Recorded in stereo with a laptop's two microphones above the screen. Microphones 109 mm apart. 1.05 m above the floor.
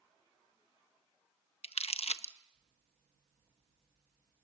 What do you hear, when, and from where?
1.6 s crumpling: 65° left (ahead or behind), 0.9 m